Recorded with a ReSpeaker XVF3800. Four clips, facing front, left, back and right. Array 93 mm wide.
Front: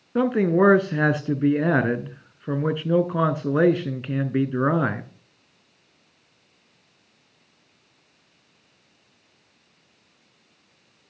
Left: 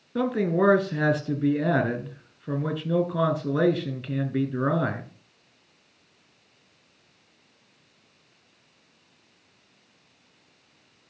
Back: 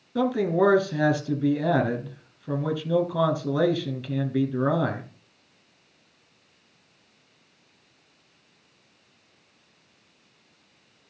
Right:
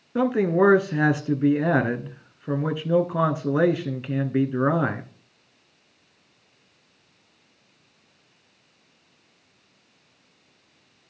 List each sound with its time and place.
0.1 s a man speaking: 25° right, 1.3 m